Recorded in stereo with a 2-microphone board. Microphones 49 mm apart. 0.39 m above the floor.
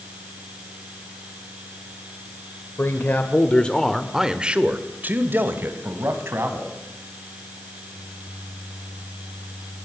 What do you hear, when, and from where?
2.8 s a man speaking: 50° left (ahead or behind), 1.9 m; by 6.7 s 60° right (ahead or behind), 3.5 m